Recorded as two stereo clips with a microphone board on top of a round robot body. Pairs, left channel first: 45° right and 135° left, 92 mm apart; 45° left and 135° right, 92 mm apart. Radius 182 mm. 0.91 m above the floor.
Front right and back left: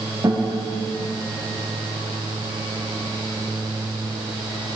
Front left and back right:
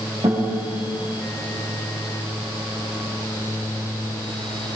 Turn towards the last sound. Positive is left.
turn(degrees=-170)